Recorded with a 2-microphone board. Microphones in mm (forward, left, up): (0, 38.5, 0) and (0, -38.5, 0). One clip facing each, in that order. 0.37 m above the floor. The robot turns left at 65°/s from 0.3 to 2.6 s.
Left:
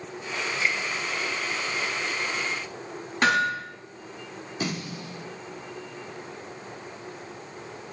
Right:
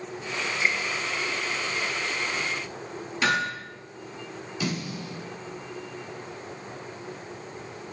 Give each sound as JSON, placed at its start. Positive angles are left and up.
{"t": 0.6, "sound": "a finger snap", "side_deg": -25, "distance_m": 1.3}
{"t": 3.2, "sound": "hammering", "side_deg": 50, "distance_m": 6.0}
{"t": 4.6, "sound": "a snare drum", "side_deg": 40, "distance_m": 5.5}